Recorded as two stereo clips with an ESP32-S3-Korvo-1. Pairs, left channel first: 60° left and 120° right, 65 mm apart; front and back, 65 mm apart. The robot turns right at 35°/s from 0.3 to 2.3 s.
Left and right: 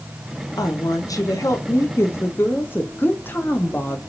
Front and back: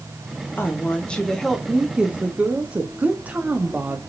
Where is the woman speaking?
55° left, 0.8 m; by 4.0 s 115° left, 0.8 m.